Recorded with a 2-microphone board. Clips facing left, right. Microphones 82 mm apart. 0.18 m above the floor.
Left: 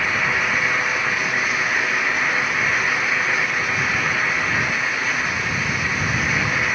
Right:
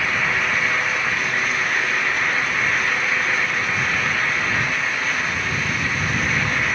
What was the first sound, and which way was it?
Only background noise.